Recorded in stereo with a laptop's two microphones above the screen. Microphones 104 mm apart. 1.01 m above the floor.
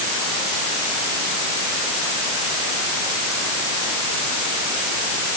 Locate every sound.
Only background noise.